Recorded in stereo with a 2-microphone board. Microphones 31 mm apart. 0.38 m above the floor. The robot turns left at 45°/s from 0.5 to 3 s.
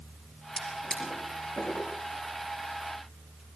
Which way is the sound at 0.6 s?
10° left (ahead or behind).